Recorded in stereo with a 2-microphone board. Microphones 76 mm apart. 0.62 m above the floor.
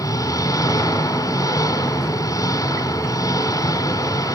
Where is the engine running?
45° left (ahead or behind), 3 m.